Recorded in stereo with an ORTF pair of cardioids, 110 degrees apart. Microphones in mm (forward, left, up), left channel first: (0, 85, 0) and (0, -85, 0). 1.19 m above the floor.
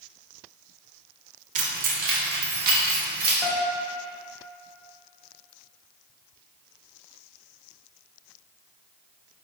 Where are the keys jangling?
50° right, 0.6 m; by 3.3 s 70° right, 1.5 m.